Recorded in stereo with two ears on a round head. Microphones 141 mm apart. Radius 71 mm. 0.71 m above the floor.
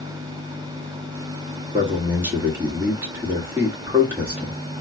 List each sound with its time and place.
1.7 s a man speaking: 15° right (ahead or behind), 1.6 m